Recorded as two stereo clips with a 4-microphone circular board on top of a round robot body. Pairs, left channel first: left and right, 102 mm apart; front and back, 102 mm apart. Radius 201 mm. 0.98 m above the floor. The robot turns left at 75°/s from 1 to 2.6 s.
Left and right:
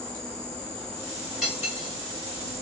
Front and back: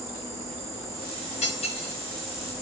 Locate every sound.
0.0 s an insect: 10° left, 3 m; by 2.6 s 110° right, 3 m
1.4 s cutlery clinking: 5° right, 2 m; by 1.9 s 45° right, 2 m